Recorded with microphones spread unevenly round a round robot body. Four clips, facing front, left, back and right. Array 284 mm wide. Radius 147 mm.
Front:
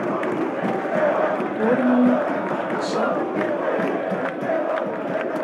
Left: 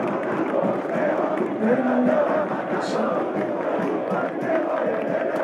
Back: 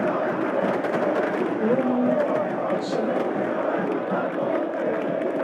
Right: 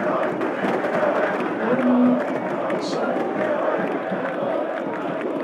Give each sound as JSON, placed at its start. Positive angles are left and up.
{"t": 1.6, "sound": "a woman speaking", "azimuth_deg": 15, "distance_m": 0.9}